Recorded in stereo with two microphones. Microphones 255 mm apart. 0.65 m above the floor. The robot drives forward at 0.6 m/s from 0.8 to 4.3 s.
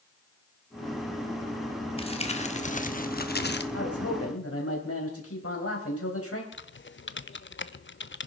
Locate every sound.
2.0 s crumpling: 20° left (ahead or behind), 1.4 m; by 3.6 s 40° left (ahead or behind), 0.8 m
3.7 s a man speaking: 65° left (ahead or behind), 3.5 m; by 6.4 s 60° left (ahead or behind), 3.5 m
6.5 s typing on a keyboard: 45° left (ahead or behind), 0.5 m